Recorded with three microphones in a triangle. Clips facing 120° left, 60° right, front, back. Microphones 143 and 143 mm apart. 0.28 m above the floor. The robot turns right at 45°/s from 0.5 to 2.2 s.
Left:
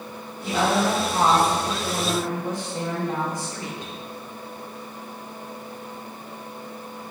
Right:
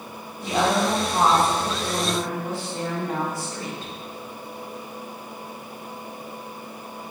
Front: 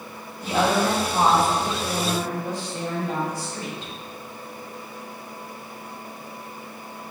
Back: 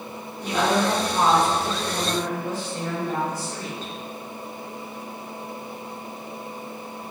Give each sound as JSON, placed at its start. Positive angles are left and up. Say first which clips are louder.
{"t": 0.4, "sound": "a woman speaking", "louder": "even, front 1 dB", "azimuth_deg": -15, "distance_m": 1.5}